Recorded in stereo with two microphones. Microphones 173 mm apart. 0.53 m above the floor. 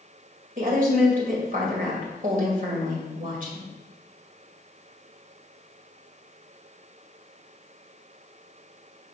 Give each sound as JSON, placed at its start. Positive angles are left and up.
{"t": 0.6, "sound": "a woman speaking", "side_deg": -50, "distance_m": 1.8}